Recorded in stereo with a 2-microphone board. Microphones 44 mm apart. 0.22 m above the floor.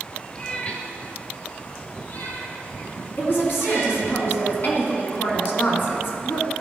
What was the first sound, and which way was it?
A cat meowing, 25° left (ahead or behind).